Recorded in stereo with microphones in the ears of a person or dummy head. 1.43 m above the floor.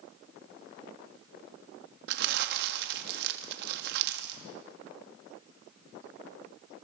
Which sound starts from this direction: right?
Crumpling, at 2.1 s.